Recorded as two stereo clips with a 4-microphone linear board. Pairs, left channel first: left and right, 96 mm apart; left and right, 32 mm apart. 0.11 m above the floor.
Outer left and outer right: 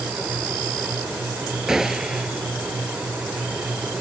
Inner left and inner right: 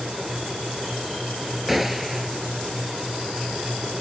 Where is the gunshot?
5° right (ahead or behind).